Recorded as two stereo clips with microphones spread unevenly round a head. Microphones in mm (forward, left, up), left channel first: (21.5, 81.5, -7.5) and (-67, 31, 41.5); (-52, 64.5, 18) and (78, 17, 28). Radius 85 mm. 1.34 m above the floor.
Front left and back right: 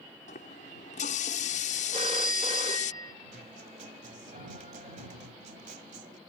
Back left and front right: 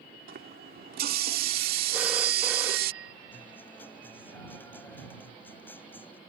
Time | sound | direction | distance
0.3 | a running tap | 10° right | ?
1.9 | a phone ringing | 100° right | ?
3.3 | a guitar | 120° right | ?